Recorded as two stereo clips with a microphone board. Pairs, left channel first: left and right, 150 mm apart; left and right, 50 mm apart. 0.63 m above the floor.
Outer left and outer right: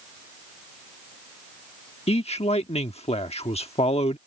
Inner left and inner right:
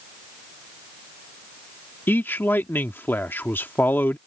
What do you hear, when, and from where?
2.1 s a man speaking: 45° left (ahead or behind)